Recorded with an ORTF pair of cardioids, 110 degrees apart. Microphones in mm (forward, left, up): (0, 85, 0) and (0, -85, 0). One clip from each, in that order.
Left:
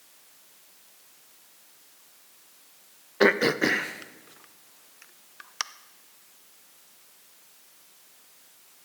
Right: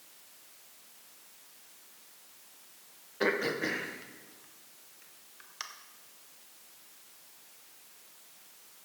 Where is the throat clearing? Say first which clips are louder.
Left 9 dB; 45° left, 0.6 m.